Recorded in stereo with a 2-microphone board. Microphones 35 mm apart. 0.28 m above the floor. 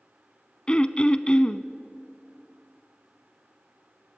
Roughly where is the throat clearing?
Left.